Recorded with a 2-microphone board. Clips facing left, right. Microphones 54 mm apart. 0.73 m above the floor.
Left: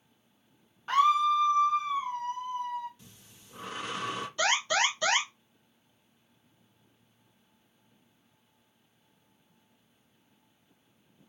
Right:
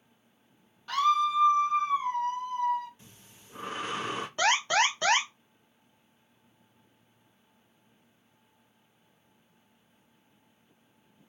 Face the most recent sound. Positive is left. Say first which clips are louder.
# right 2 dB
turn(degrees=-40)  # may be behind; listen again after turning